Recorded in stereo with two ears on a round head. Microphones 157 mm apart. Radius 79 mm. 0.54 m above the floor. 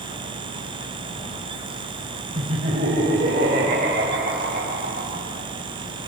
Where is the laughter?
35° right (ahead or behind), 2 m; by 5.2 s 50° right (ahead or behind), 3.5 m.